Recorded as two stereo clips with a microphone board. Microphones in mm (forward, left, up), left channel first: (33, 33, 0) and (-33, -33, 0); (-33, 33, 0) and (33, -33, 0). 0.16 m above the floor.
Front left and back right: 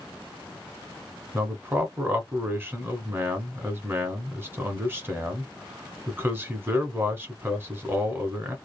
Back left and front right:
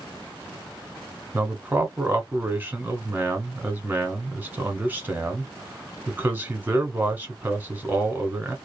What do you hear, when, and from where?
1.3 s a man speaking: 95° right, 1.2 m